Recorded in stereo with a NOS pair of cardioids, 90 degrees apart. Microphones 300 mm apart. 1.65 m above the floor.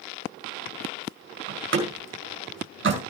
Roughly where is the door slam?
Ahead right.